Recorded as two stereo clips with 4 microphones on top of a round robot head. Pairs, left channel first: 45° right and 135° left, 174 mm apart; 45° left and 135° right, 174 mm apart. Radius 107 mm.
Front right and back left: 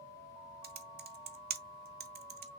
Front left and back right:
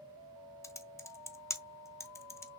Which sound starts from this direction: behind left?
Typing on a keyboard, at 0.6 s.